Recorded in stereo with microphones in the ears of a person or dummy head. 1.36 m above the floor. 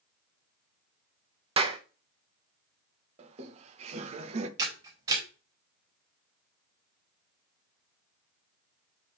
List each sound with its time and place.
1.6 s a clap: 30° right (ahead or behind), 0.8 m
3.2 s laughter: 40° right (ahead or behind), 1.2 m
4.6 s a camera shutter: 25° right (ahead or behind), 3.5 m